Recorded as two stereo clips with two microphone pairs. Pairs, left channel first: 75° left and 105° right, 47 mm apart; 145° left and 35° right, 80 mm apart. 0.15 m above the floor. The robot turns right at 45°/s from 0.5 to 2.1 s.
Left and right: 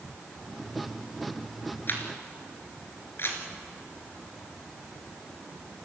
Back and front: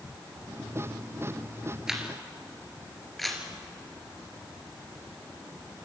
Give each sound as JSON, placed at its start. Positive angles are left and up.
{"t": 1.9, "sound": "a camera shutter", "azimuth_deg": 50, "distance_m": 2.5}